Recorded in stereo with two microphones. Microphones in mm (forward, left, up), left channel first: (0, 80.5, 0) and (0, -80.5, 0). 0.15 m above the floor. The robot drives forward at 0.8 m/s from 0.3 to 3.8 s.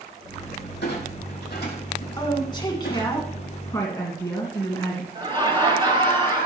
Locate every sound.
0.8 s a clunk: 80° left, 5 m; by 3.2 s 65° left (ahead or behind), 5.5 m
2.2 s a woman speaking: 25° left (ahead or behind), 1.8 m; by 5.0 s 20° left (ahead or behind), 2 m
5.2 s laughter: 30° right (ahead or behind), 4 m